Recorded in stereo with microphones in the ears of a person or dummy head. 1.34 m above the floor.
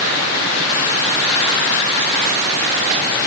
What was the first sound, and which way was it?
Only background noise.